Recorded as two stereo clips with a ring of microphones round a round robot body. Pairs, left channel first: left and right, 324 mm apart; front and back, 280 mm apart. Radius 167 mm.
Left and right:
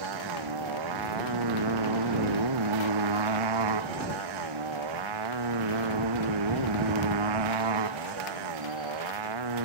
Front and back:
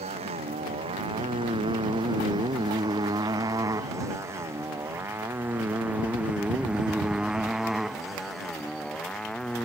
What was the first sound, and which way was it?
A motorcycle, 105° right.